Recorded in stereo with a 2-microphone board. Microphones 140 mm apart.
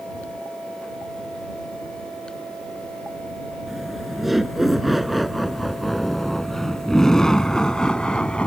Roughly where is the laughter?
Centre.